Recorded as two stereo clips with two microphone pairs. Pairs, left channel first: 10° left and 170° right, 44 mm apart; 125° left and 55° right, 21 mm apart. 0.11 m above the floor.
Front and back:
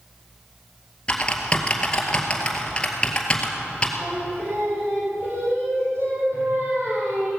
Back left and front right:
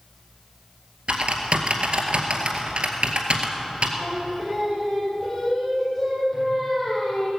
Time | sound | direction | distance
1.1 | typing on a keyboard | 55° right | 1.9 m
4.0 | singing | 155° right | 4.5 m